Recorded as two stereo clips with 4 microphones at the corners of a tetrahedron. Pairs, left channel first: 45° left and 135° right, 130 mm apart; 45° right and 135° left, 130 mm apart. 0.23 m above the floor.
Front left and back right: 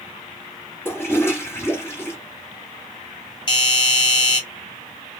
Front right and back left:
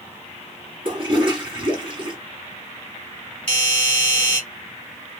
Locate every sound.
0.8 s a toilet flushing: 110° left, 1.7 m
3.5 s a doorbell: 25° left, 2.5 m